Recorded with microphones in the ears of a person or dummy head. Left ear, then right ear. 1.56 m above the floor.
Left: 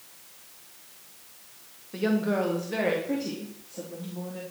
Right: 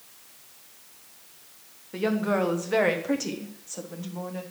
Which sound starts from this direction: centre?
A woman speaking, at 1.9 s.